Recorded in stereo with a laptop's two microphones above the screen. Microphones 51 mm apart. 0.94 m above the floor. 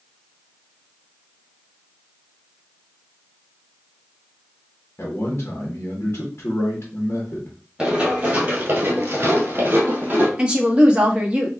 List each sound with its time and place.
5.0 s a man speaking: 50° left (ahead or behind), 1.1 m
7.8 s running footsteps: 15° right (ahead or behind), 1.8 m; by 10.3 s 35° right (ahead or behind), 2 m
10.4 s a woman speaking: 20° right (ahead or behind), 1.2 m